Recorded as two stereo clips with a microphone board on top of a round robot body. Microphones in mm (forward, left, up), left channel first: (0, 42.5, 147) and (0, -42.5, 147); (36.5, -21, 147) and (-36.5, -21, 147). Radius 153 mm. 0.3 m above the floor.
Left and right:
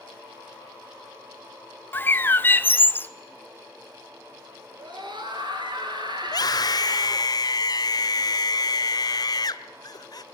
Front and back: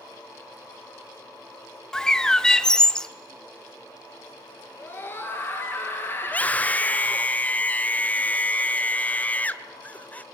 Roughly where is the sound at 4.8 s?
Ahead right.